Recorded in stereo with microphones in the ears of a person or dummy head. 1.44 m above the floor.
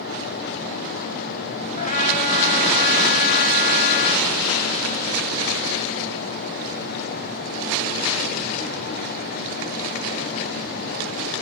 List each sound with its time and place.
1.8 s a trumpet: 45° left (ahead or behind), 3.5 m